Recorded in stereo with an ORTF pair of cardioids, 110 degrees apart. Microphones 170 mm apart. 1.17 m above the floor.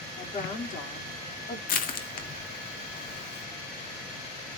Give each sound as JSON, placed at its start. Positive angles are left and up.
{"t": 0.2, "sound": "a woman speaking", "azimuth_deg": 50, "distance_m": 4.0}
{"t": 1.7, "sound": "crushing", "azimuth_deg": 55, "distance_m": 2.0}